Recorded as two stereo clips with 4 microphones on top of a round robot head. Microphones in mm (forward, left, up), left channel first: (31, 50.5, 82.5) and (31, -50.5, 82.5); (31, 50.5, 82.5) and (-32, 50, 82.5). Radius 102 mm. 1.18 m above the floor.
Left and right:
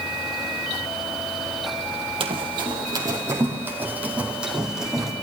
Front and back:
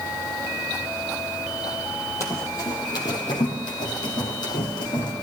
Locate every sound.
2.2 s running footsteps: 60° right, 2.5 m; by 5.1 s 5° right, 4 m